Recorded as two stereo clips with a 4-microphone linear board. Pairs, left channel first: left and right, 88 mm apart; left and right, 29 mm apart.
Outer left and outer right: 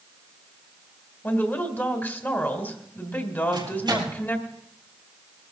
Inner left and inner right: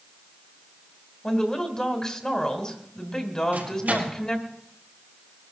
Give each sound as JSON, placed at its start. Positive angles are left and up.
{"t": 1.2, "sound": "a woman speaking", "side_deg": 25, "distance_m": 1.8}
{"t": 3.5, "sound": "a microwave", "side_deg": -60, "distance_m": 4.5}